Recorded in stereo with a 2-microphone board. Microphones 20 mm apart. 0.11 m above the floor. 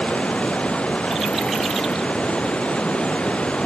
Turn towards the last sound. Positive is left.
turn(degrees=75)  # may be behind; listen again after turning